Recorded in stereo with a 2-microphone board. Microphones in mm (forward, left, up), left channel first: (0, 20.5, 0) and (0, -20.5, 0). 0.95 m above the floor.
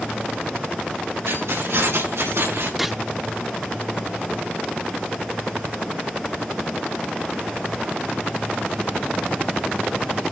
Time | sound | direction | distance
1.3 | keys jangling | 90° right | 6.5 m
2.8 | a gunshot | 10° right (ahead or behind) | 0.7 m